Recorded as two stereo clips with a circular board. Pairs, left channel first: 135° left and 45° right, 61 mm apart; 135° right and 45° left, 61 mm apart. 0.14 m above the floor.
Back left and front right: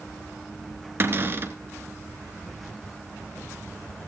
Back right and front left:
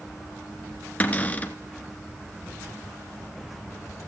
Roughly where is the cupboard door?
Right.